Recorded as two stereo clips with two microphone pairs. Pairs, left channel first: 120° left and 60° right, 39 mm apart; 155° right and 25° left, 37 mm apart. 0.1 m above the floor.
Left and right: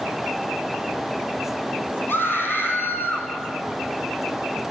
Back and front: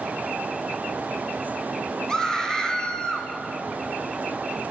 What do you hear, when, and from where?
2.1 s a scream: 130° left, 4.5 m; by 3.3 s 135° left, 5 m